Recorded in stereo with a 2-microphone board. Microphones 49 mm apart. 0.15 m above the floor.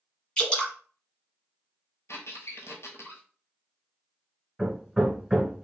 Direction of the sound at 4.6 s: Centre (ahead or behind).